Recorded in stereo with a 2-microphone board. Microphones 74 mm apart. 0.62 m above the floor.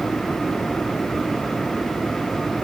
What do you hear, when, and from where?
Only background noise.